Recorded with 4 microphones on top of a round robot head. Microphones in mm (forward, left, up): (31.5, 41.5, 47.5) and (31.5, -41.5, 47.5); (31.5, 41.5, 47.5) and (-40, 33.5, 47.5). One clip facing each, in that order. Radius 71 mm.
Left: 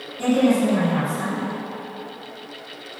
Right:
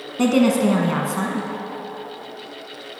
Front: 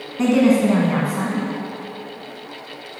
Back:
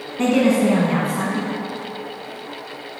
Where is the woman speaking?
85° right, 1.6 m.